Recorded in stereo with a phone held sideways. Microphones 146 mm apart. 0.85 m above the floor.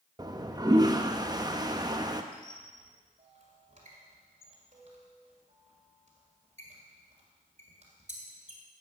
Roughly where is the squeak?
Right.